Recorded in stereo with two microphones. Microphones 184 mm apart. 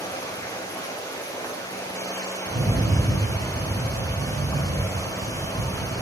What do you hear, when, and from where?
0.0 s running water: 20° left (ahead or behind), 1.2 m
2.5 s a rattle: 35° right (ahead or behind), 1.7 m